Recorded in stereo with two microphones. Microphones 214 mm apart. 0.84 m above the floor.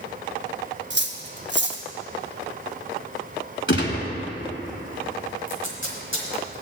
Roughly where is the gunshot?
Left.